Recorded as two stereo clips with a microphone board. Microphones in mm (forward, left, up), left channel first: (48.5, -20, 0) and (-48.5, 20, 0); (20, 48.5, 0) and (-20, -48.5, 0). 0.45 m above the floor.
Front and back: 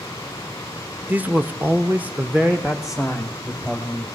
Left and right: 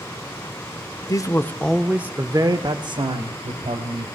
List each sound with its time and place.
1.1 s a man speaking: 90° left, 1.0 m; by 4.1 s 115° right, 2 m